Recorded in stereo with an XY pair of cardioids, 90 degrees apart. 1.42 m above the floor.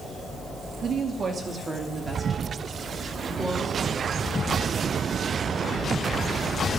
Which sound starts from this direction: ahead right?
A woman speaking, at 0.8 s.